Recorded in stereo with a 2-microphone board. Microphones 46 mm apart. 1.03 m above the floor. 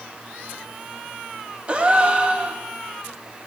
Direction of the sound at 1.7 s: 25° right (ahead or behind).